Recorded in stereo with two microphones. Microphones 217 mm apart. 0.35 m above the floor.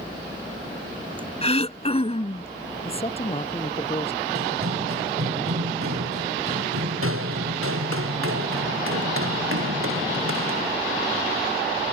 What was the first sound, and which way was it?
Throat clearing, 30° left (ahead or behind).